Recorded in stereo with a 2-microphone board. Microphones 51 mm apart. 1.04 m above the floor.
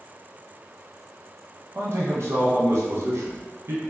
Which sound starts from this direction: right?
A man speaking, at 1.8 s.